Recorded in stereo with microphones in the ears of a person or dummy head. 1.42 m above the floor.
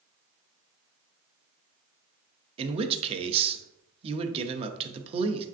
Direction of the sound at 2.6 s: 30° right (ahead or behind).